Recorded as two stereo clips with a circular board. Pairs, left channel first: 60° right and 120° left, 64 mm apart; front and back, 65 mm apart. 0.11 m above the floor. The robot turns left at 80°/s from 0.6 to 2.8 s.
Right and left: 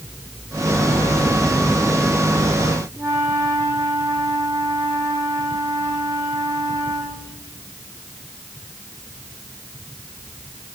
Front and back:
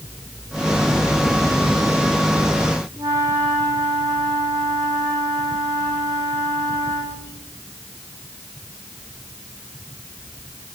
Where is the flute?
165° left, 7 m.